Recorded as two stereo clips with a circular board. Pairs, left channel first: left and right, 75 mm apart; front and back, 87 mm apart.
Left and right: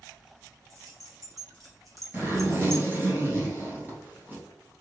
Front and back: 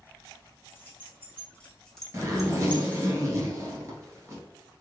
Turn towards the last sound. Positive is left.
turn(degrees=-140)